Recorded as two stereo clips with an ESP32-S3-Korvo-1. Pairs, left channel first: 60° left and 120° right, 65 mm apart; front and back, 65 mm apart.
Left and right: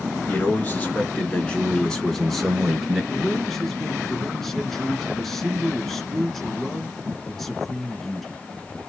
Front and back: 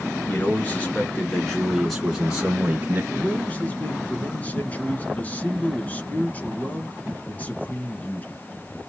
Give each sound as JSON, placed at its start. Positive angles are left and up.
{"t": 0.3, "sound": "a man speaking", "azimuth_deg": 30, "distance_m": 2.0}
{"t": 3.1, "sound": "a man speaking", "azimuth_deg": -20, "distance_m": 1.2}